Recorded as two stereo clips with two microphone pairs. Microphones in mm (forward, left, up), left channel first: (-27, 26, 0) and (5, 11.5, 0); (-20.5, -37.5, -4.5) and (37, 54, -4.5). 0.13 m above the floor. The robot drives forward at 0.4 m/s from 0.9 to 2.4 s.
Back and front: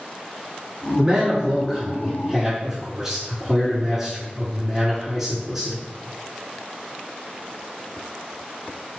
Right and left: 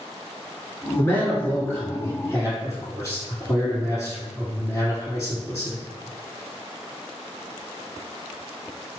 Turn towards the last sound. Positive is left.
turn(degrees=-105)